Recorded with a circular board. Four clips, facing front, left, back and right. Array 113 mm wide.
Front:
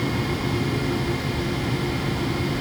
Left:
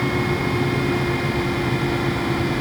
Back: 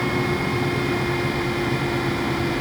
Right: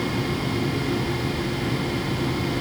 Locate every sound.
Only background noise.